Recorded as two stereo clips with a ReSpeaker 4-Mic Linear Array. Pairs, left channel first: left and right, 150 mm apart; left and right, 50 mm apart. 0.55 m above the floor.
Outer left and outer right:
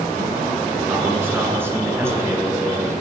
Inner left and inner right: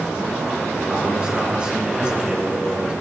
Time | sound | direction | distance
0.9 | a man speaking | 15° right (ahead or behind) | 9 m